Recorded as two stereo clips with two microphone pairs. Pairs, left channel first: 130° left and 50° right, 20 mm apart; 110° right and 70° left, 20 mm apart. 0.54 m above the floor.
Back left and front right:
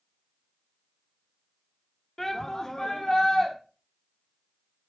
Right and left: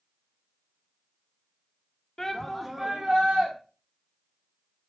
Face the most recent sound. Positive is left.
turn(degrees=80)